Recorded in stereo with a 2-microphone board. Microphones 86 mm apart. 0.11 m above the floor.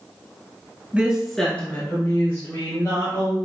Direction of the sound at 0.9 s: 20° right (ahead or behind).